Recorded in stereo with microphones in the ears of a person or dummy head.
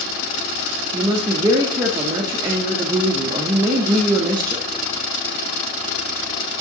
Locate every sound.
0.9 s a woman speaking: 25° right (ahead or behind), 0.6 m